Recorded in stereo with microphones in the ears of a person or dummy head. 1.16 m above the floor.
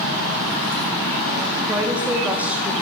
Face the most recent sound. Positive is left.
turn(degrees=-5)  # may be behind; listen again after turning